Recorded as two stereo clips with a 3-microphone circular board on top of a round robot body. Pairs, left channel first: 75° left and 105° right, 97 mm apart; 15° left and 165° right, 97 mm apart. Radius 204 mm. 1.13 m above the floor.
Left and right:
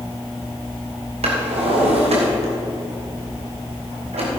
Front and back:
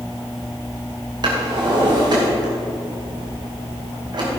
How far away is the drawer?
About 2.5 m.